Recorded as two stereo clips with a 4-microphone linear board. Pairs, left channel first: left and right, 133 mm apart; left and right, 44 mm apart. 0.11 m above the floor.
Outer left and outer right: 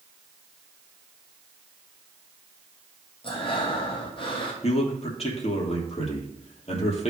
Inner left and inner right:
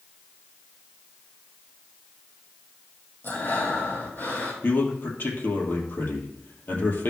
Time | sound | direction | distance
3.2 | breathing | 40° left (ahead or behind) | 2.5 m
4.6 | a man speaking | 50° left (ahead or behind) | 2.5 m